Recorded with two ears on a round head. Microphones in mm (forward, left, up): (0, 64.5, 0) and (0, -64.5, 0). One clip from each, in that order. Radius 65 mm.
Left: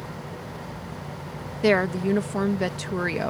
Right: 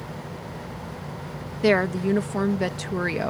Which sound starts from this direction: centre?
A woman speaking, at 1.6 s.